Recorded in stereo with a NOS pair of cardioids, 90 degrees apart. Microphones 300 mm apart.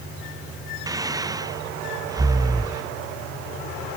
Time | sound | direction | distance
0.9 | breathing | 15° right | ?